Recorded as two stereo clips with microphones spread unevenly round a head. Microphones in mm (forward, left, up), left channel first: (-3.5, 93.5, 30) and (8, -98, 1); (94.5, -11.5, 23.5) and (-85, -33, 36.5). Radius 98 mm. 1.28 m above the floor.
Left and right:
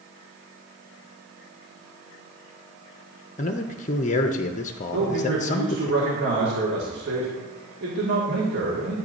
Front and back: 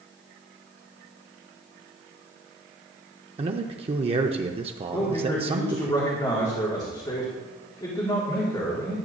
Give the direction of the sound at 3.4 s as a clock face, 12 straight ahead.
7 o'clock.